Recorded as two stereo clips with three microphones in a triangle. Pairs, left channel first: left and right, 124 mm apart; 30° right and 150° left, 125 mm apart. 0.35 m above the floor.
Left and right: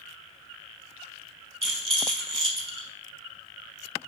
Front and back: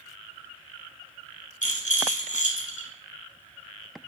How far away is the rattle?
About 0.6 m.